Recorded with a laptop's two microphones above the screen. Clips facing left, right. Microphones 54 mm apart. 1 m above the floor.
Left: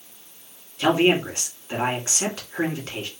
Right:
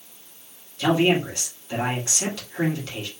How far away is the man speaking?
About 1.9 m.